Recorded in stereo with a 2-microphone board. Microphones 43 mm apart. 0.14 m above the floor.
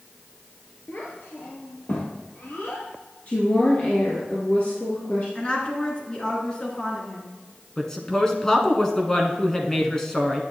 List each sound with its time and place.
0.9 s a child speaking: 50° left (ahead or behind), 1.5 m; by 2.9 s 70° left (ahead or behind), 2.5 m
3.3 s a woman speaking: 45° left (ahead or behind), 1.8 m
5.3 s a woman speaking: 25° left (ahead or behind), 2 m
7.8 s a woman speaking: 15° left (ahead or behind), 1.1 m